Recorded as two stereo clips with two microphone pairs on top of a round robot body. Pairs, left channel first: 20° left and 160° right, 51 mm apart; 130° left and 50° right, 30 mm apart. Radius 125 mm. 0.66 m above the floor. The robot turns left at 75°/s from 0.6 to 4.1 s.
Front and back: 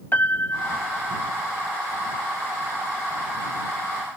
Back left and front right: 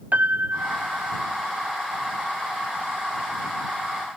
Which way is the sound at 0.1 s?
30° right.